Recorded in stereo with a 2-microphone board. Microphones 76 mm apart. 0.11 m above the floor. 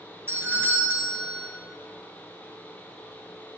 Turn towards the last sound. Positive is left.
turn(degrees=-30)  # may be behind; listen again after turning